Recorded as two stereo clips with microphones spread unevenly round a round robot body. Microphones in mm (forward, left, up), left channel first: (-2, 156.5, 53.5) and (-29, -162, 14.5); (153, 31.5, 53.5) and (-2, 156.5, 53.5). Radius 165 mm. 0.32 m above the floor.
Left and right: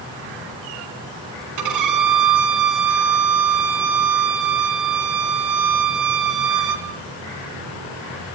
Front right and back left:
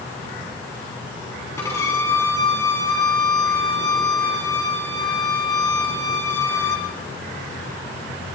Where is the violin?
120° right, 3.5 m.